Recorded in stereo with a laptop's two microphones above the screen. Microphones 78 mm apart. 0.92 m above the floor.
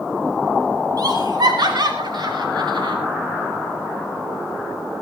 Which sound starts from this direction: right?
Laughter, at 1.0 s.